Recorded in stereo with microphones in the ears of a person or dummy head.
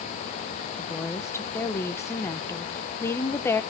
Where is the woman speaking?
15° left (ahead or behind), 0.9 m.